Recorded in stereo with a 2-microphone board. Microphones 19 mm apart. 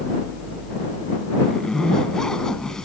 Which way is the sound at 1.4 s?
35° left (ahead or behind).